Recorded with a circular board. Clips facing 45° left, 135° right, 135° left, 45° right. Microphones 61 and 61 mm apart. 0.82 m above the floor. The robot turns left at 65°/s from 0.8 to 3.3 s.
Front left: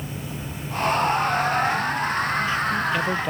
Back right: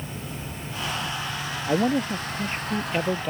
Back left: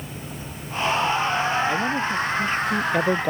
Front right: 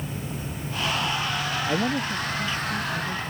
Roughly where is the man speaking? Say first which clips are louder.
Even, back left 2 dB; behind right.